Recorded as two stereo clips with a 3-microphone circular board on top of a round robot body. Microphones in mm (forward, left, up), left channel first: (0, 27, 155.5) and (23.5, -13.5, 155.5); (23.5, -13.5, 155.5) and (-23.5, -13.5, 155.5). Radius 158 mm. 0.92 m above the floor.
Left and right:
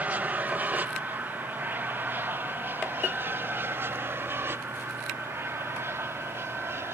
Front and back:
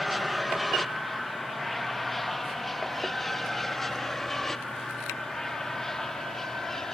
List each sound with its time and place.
0.0 s an aircraft: 90° right; by 6.9 s 80° right